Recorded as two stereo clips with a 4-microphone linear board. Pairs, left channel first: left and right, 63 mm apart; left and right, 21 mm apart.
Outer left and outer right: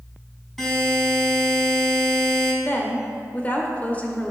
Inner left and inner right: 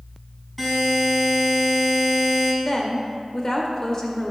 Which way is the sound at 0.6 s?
5° left (ahead or behind).